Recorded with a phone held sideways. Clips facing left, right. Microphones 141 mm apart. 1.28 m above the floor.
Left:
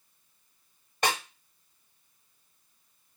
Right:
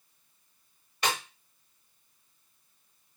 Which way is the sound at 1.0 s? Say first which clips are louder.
Left 2 dB; 45° left (ahead or behind).